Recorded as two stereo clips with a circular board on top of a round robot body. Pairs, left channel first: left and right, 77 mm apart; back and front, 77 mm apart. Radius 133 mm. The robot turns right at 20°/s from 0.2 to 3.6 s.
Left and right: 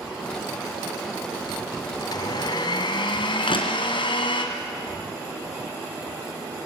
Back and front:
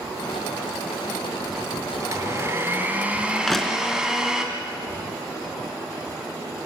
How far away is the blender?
About 2.5 m.